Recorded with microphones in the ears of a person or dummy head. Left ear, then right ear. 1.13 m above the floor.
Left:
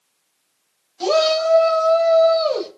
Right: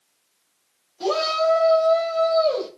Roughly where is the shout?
Left.